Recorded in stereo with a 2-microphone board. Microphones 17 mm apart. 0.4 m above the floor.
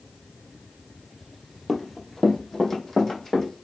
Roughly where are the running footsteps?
Centre.